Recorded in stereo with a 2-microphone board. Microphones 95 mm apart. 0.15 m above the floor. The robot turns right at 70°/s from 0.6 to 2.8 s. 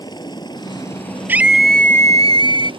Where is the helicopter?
45° left (ahead or behind); by 2.8 s 65° right (ahead or behind).